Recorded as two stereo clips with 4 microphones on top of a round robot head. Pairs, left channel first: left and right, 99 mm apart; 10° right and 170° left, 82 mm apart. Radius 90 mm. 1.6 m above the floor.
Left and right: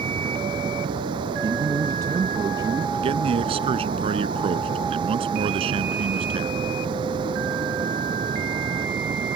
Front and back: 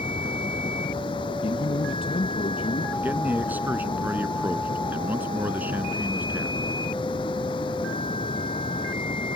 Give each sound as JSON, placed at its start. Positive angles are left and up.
{"t": 0.0, "sound": "running water", "azimuth_deg": -45}
{"t": 1.4, "sound": "a man speaking", "azimuth_deg": -30}
{"t": 2.9, "sound": "a man speaking", "azimuth_deg": -120}